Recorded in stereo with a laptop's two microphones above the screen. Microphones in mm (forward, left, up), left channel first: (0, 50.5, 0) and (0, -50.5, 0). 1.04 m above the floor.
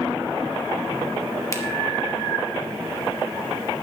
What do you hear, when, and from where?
1.5 s a finger snap: 30° left (ahead or behind), 1.2 m